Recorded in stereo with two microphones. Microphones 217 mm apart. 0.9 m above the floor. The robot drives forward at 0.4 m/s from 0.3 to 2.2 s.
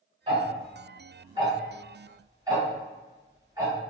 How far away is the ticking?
About 1.2 m.